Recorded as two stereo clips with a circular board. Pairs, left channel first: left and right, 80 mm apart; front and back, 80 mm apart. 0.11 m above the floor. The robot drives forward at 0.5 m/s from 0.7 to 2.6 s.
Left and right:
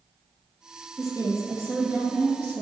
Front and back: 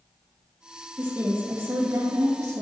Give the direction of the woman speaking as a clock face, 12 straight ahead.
4 o'clock.